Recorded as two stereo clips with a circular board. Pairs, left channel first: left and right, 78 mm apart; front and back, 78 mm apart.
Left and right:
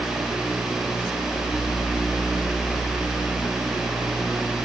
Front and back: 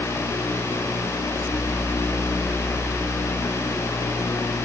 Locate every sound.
Only background noise.